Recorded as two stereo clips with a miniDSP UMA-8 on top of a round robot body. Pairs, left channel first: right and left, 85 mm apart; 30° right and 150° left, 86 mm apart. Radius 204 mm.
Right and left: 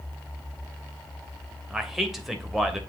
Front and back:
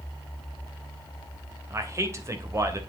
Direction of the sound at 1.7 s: 175° left.